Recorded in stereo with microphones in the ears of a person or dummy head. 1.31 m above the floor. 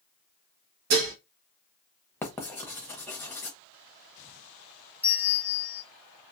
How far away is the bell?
About 1.0 m.